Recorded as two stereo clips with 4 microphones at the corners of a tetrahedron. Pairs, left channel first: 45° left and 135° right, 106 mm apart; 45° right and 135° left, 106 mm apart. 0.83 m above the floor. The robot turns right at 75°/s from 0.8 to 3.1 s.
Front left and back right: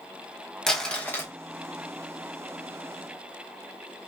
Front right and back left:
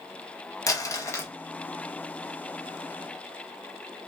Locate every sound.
0.7 s crumpling: 35° right, 0.9 m; by 1.3 s straight ahead, 0.9 m